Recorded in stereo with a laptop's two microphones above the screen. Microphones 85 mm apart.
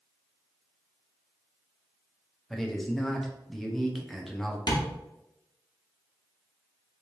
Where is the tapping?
55° left (ahead or behind), 0.9 m.